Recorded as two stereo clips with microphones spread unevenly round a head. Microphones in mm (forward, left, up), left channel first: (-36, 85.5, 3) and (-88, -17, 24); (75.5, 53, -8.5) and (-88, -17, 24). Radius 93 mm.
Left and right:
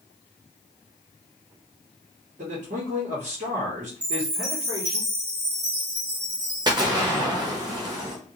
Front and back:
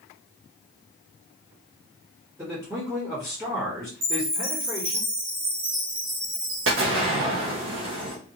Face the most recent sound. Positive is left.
turn(degrees=-175)